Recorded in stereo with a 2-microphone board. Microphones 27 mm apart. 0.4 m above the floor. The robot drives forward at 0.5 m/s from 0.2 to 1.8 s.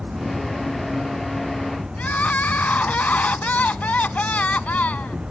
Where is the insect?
45° right (ahead or behind); by 5.3 s 35° right (ahead or behind).